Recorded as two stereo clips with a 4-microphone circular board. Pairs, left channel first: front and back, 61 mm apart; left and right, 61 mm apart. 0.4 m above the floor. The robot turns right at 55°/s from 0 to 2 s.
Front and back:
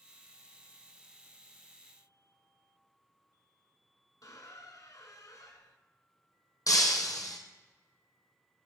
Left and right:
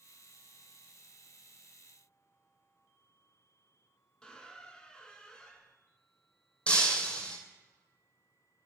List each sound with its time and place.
4.2 s a squeak: 15° left, 1.0 m
6.7 s breaking glass: 20° left, 1.5 m